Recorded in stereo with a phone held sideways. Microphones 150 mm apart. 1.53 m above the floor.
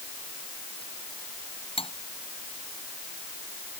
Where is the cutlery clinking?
40° left (ahead or behind).